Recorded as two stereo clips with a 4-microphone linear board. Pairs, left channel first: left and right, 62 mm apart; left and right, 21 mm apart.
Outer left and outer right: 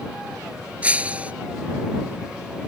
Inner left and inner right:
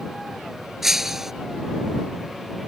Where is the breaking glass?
20° right (ahead or behind).